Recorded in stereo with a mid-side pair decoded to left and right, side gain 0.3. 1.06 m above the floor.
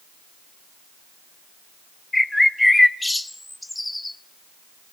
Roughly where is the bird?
Ahead.